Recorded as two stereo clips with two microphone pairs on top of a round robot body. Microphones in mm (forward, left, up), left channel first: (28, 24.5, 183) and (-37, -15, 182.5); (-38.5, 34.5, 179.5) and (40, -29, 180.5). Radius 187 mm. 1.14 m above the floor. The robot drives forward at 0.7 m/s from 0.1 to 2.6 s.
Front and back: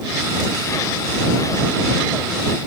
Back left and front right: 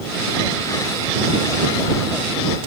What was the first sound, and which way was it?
Only background noise.